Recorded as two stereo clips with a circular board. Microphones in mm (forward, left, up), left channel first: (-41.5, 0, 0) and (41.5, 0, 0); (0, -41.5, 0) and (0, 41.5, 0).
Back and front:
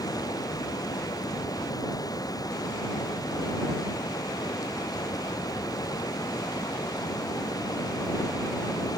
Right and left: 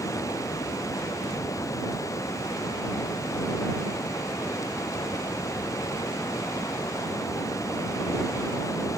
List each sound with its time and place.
0.0 s running water: 140° right